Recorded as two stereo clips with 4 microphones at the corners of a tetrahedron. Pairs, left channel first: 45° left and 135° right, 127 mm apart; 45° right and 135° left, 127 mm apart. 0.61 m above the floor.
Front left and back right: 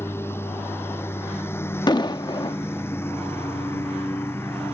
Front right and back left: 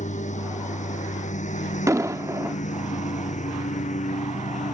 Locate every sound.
0.0 s a lawn mower: 25° right
1.9 s an explosion: 85° left